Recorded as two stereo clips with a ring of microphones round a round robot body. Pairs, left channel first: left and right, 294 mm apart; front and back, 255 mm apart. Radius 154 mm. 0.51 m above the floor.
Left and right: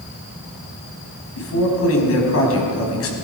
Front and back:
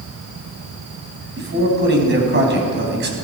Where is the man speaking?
135° left, 3.5 m.